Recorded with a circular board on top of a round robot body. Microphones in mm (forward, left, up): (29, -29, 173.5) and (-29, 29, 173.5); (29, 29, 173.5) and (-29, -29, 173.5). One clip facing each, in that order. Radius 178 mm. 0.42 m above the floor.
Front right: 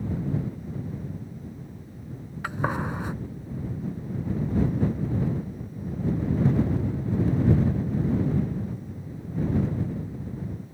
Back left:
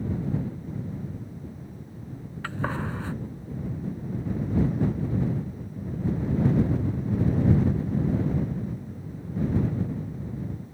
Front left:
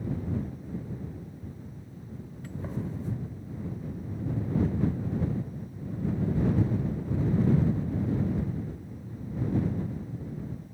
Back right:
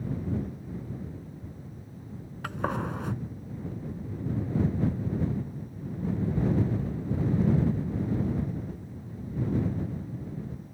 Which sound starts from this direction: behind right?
A gunshot, at 2.4 s.